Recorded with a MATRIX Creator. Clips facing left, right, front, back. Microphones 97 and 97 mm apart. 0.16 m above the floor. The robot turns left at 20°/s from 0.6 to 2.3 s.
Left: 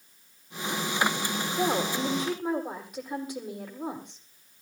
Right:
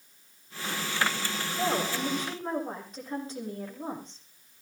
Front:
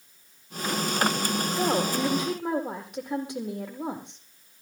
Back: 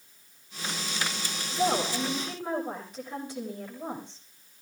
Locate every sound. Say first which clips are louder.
1.5 s a woman speaking: left 2 dB, even; 30° left, 7 m; by 4.2 s 10° left, 7 m